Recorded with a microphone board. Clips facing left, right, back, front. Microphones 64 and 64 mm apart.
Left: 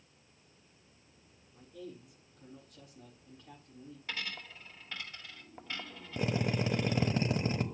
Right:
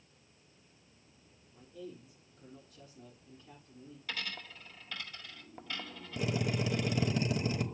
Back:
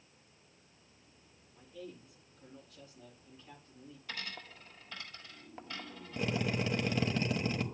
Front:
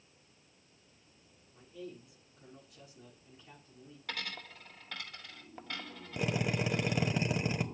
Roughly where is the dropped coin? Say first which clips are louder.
Even, front 3 dB; ahead left.